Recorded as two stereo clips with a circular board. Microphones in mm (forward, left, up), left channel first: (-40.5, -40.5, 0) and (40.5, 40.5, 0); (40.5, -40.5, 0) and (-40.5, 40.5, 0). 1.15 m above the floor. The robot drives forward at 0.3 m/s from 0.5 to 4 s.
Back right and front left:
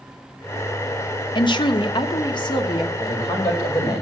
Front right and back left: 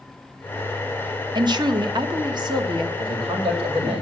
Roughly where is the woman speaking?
Behind.